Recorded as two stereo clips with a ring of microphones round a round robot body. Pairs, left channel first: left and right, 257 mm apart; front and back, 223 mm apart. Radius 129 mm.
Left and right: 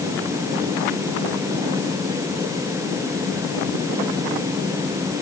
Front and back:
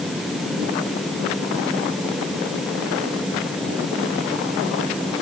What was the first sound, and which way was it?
Only background noise.